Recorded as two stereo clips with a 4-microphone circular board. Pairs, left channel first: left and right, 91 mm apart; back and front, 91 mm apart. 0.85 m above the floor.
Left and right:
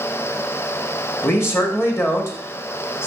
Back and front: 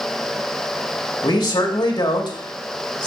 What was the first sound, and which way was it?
A man speaking, 145° left.